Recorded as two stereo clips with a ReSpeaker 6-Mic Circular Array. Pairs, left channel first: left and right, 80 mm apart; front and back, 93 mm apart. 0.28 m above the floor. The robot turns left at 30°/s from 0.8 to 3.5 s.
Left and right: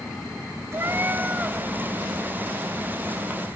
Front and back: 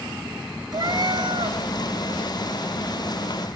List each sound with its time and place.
0.7 s a cat meowing: 140° right, 0.9 m; by 1.6 s 165° right, 0.9 m